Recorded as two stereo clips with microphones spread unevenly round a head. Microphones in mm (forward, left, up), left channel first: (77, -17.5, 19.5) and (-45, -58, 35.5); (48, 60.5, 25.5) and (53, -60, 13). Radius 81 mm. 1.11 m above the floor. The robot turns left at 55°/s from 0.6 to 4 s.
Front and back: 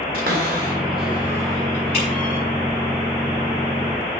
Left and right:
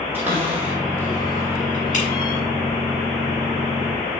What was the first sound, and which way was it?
A cupboard door, 170° right.